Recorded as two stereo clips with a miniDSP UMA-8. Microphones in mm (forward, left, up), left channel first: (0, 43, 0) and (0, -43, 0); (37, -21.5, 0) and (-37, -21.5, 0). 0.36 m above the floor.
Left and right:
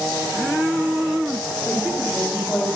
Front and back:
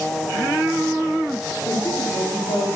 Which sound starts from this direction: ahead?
A woman speaking, at 1.6 s.